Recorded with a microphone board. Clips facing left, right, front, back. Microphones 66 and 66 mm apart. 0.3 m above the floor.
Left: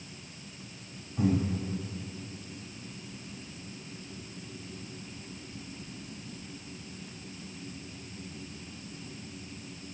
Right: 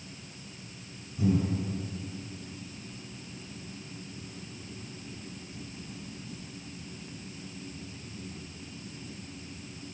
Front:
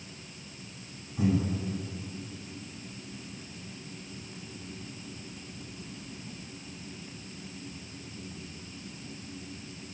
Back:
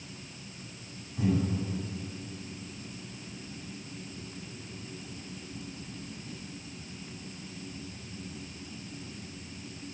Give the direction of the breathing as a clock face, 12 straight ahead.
9 o'clock.